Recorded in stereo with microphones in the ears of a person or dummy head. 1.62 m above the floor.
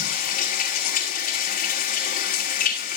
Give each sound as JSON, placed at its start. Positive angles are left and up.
{"t": 0.0, "sound": "running water", "side_deg": 40, "distance_m": 3.5}